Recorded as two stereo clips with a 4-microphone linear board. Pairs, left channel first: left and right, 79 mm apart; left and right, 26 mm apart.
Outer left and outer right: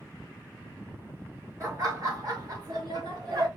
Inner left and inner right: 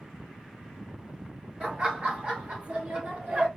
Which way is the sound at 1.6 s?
40° right (ahead or behind).